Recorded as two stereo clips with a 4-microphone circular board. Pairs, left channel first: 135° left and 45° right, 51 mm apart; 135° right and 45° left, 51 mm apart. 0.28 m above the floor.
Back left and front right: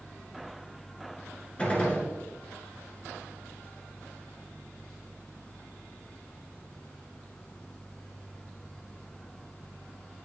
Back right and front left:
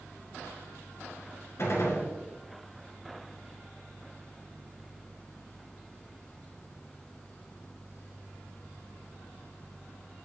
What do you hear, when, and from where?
1.6 s a gunshot: 160° right, 1.8 m